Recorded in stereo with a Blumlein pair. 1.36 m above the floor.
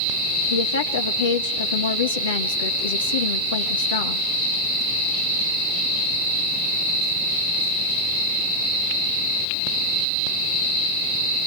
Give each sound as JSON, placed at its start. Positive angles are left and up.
{"t": 0.5, "sound": "a woman speaking", "azimuth_deg": 65, "distance_m": 2.0}